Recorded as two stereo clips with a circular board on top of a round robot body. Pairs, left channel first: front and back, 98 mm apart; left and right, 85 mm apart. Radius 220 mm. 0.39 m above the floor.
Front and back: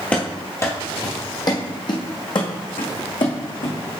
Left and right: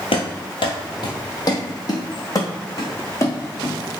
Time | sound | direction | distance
0.1 | running footsteps | 80° left | 0.7 m